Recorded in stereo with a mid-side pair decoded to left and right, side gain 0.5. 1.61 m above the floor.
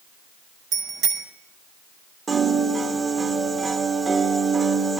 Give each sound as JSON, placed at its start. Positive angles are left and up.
{"t": 0.7, "sound": "a bicycle bell", "azimuth_deg": -65, "distance_m": 6.0}
{"t": 2.3, "sound": "a piano", "azimuth_deg": -35, "distance_m": 3.5}